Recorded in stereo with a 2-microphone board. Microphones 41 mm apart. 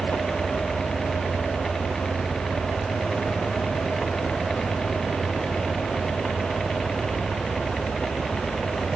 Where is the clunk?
I don't hear a clunk.